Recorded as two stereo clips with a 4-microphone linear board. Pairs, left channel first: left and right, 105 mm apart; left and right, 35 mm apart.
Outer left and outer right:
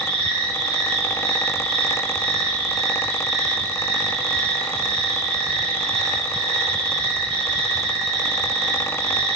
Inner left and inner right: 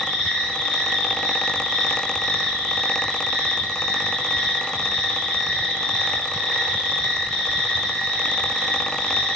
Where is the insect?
10° left (ahead or behind), 5.5 m.